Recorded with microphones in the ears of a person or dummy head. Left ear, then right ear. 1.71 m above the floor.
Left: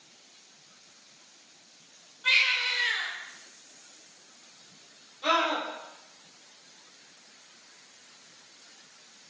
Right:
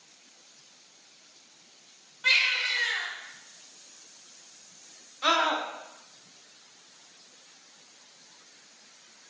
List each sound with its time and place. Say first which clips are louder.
2.2 s a baby crying: even; 55° right (ahead or behind), 1.8 m
5.2 s a scream: right 1 dB; 70° right (ahead or behind), 1.0 m